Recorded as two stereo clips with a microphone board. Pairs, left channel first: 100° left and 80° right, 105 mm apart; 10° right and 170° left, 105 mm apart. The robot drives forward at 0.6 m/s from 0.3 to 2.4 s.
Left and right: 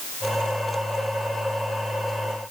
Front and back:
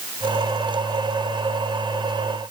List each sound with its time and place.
Only background noise.